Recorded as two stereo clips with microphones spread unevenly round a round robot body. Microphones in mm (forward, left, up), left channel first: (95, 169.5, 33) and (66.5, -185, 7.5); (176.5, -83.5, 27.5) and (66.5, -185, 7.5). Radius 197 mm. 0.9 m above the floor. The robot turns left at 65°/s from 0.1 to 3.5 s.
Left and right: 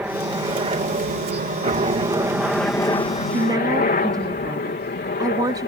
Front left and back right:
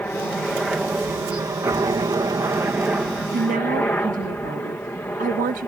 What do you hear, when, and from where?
0.0 s a helicopter: 20° right; by 5.7 s 115° left
3.3 s a woman speaking: 160° right; by 5.7 s 175° right